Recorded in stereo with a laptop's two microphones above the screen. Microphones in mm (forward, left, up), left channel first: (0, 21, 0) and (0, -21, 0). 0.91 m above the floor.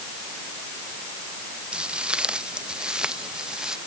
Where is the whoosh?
I don't hear a whoosh.